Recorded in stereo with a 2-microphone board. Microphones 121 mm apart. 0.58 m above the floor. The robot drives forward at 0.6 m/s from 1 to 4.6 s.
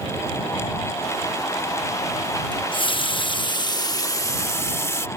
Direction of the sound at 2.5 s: 40° left (ahead or behind).